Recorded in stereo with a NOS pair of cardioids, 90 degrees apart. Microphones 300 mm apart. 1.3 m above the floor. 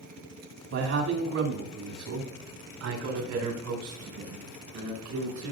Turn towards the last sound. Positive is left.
turn(degrees=-75)